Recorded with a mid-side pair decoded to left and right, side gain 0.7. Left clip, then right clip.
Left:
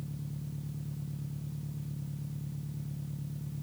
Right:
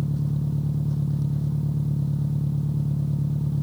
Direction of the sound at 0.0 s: 50° right.